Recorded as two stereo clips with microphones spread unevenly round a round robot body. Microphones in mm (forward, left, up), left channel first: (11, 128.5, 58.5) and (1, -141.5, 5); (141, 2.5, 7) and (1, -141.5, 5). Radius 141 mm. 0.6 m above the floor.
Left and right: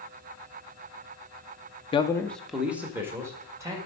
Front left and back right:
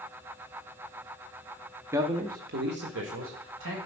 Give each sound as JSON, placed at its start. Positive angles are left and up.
{"t": 1.9, "sound": "a man speaking", "azimuth_deg": 160, "distance_m": 0.6}